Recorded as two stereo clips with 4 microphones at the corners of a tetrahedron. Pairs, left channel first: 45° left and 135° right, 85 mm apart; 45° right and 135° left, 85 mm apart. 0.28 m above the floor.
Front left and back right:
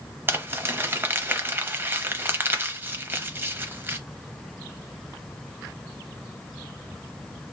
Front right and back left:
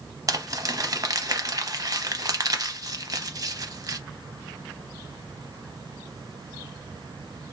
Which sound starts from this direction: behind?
Crumpling, at 0.3 s.